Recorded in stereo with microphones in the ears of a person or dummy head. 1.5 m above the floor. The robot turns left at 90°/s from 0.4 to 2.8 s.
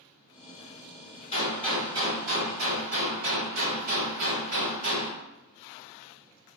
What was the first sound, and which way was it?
A gunshot, 35° left.